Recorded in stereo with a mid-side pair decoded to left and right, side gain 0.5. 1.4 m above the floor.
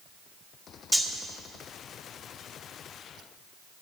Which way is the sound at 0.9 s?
15° left.